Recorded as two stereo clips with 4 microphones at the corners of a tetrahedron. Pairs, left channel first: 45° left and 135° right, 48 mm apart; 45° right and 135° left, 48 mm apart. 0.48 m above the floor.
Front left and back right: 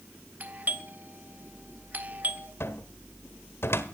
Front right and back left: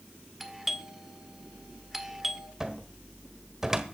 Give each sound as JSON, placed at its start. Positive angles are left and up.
{"t": 0.4, "sound": "a doorbell", "azimuth_deg": -145, "distance_m": 1.6}
{"t": 2.6, "sound": "a cupboard door", "azimuth_deg": 55, "distance_m": 1.4}